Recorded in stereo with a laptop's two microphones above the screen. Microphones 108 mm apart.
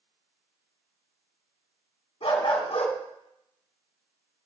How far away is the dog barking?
About 2 m.